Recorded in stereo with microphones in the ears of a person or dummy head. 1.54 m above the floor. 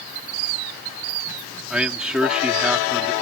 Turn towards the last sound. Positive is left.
turn(degrees=-10)  # may be behind; listen again after turning